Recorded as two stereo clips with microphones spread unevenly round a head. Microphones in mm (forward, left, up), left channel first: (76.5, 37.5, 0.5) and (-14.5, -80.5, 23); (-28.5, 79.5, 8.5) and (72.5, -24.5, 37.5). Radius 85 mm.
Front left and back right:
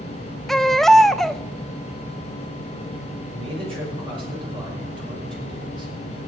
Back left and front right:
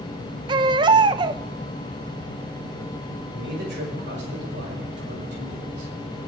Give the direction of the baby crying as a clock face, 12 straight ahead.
2 o'clock.